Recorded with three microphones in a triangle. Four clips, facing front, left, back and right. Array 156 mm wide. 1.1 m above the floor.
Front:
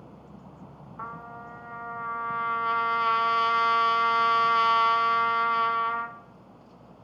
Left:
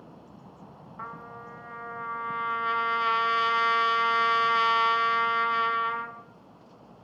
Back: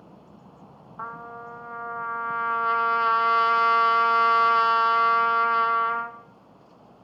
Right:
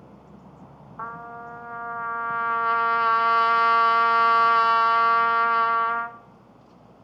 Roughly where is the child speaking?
No child speaking in this recording.